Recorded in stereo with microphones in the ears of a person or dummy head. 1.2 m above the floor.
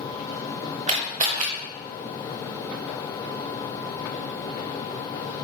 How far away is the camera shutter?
About 0.8 m.